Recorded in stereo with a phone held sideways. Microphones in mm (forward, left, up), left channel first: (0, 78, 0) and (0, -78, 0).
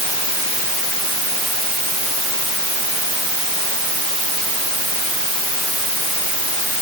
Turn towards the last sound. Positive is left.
No sound to turn to.